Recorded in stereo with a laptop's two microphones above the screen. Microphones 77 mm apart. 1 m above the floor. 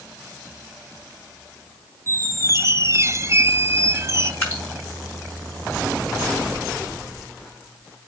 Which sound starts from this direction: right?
A squeak, at 2.1 s.